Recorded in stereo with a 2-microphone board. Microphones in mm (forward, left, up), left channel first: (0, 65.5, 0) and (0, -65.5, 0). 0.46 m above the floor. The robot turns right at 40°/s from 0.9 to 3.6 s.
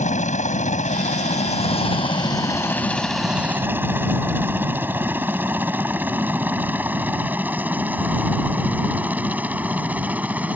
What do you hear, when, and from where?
0.0 s a helicopter: 65° left (ahead or behind); by 10.6 s 10° right (ahead or behind)